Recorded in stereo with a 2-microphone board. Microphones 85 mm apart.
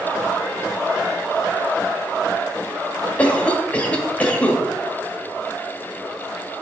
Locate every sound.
3.2 s a cough: 15° left (ahead or behind), 1.0 m